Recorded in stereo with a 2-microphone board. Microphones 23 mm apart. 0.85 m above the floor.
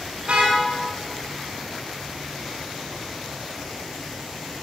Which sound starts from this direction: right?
A car horn, at 0.2 s.